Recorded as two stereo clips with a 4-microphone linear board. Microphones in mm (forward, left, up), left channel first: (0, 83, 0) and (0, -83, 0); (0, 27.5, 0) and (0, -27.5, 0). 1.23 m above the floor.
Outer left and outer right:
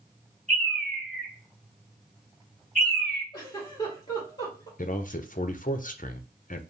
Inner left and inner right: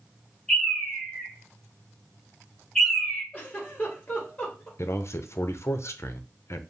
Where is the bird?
5° left (ahead or behind), 3 m.